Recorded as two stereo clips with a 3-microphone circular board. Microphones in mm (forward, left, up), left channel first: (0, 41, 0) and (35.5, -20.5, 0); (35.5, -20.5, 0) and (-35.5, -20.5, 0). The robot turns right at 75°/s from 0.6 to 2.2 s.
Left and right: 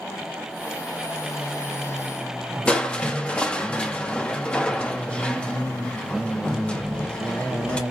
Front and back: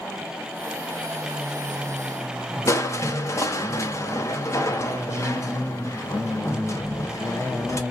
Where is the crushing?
45° left, 0.7 m.